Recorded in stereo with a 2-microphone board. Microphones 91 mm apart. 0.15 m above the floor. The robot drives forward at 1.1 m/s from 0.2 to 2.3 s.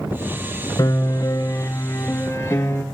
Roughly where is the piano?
Left.